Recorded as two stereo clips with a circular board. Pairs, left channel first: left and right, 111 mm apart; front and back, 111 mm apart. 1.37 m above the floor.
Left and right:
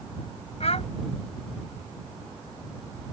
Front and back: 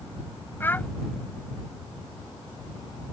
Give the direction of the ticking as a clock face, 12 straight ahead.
No ticking in this recording.